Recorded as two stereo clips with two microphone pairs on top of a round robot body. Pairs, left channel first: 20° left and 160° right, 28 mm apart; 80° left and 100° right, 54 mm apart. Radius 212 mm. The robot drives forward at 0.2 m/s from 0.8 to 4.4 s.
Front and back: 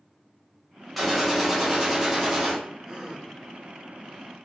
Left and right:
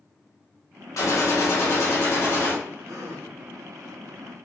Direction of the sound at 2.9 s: 100° right.